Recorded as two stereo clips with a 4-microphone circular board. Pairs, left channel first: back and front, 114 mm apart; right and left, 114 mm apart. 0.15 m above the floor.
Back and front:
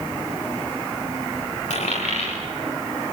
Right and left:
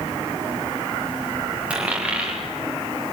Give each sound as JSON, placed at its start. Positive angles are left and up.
{"t": 1.7, "sound": "a dropped coin", "azimuth_deg": 170, "distance_m": 6.5}